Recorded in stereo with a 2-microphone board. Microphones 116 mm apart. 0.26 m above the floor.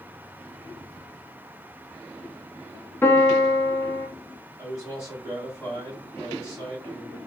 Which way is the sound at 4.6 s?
30° left (ahead or behind).